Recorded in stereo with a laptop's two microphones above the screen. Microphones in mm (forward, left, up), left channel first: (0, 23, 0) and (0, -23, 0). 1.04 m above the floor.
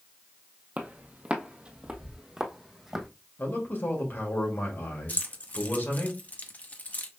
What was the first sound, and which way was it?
Footsteps, 35° right (ahead or behind).